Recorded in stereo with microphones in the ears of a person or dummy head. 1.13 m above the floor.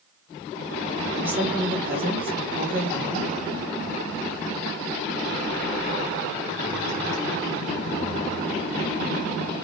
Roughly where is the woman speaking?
Centre.